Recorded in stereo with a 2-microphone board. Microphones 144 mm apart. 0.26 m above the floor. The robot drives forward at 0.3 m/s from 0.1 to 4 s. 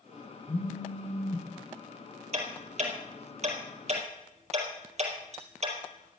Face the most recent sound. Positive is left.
turn(degrees=-50)  # may be behind; listen again after turning